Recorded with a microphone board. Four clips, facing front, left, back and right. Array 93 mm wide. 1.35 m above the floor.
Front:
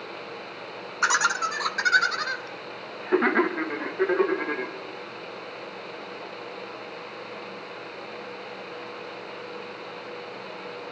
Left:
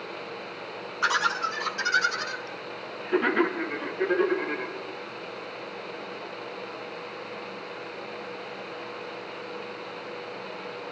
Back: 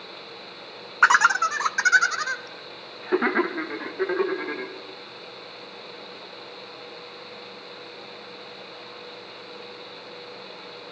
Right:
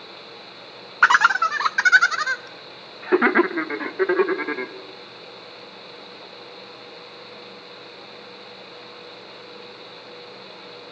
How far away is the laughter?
About 1.0 m.